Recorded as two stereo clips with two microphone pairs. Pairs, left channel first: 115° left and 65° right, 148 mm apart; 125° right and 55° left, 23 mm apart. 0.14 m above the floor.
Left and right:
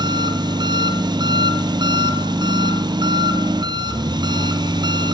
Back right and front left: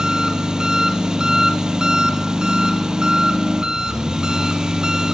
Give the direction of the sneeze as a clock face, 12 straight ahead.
No sneeze in this recording.